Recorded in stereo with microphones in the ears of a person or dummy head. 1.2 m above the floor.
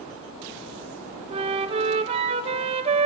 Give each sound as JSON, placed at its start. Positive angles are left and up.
{"t": 1.3, "sound": "a flute", "side_deg": -30, "distance_m": 0.8}